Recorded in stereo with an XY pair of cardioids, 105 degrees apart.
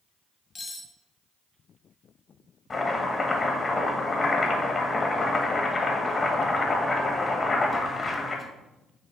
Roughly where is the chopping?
Ahead left.